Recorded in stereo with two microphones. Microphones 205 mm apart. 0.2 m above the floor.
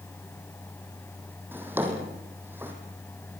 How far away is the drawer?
About 4.5 m.